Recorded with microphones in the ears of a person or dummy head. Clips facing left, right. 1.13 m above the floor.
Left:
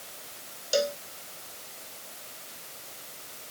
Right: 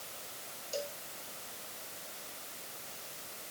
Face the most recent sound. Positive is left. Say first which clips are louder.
# left 13 dB
turn(degrees=85)